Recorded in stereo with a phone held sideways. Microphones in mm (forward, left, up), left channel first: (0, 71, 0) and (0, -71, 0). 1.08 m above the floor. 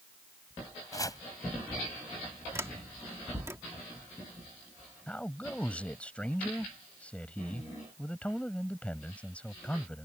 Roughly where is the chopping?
Left.